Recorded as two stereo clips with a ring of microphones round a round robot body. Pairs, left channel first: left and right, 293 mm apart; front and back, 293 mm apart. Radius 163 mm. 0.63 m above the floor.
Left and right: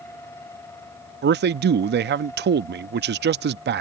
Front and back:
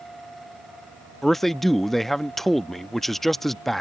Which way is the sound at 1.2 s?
90° right.